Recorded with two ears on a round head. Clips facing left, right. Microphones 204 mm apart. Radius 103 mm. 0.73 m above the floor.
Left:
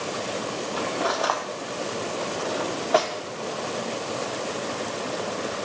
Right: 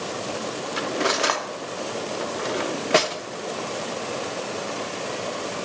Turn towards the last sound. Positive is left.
turn(degrees=-30)  # may be behind; listen again after turning